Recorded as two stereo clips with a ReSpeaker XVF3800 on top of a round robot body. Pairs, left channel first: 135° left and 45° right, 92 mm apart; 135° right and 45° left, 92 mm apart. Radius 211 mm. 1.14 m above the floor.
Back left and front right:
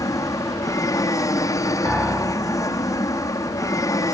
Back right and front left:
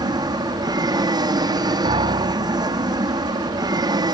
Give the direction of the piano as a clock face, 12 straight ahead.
11 o'clock.